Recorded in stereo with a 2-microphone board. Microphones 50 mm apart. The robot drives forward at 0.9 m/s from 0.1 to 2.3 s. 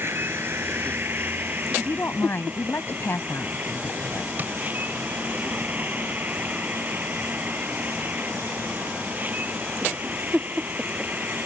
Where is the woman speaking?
45° left (ahead or behind); by 4.3 s 50° left (ahead or behind).